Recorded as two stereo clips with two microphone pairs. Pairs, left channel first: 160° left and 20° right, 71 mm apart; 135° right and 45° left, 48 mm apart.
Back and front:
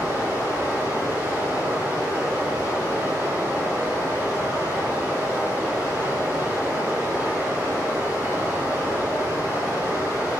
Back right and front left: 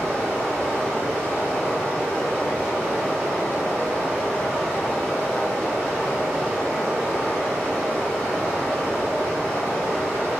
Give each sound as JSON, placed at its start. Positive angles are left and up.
{"t": 0.0, "sound": "running water", "azimuth_deg": -55, "distance_m": 1.4}